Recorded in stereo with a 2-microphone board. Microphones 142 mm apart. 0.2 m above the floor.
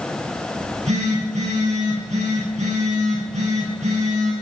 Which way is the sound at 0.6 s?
55° right (ahead or behind).